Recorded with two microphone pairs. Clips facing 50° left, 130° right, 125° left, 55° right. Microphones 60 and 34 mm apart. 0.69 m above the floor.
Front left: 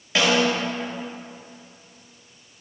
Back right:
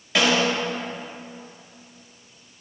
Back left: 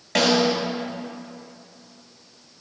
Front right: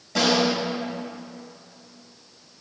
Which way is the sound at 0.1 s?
130° left.